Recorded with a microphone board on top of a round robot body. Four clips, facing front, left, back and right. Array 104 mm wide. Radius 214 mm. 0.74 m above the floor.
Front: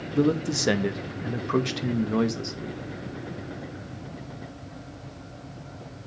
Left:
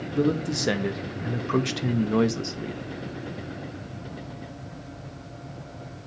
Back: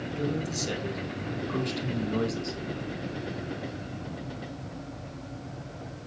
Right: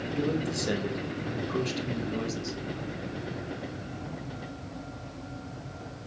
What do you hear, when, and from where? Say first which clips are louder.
0.1 s a man speaking: left 6 dB, front 9 dB; 20° left, 2 m; by 2.8 s 80° left, 1.6 m